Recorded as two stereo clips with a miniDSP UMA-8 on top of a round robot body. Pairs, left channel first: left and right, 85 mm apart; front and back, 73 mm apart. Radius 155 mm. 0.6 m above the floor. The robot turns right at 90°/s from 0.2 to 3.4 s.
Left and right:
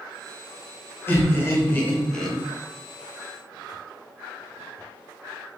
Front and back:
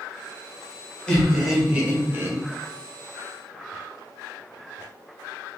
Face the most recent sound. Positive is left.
turn(degrees=-85)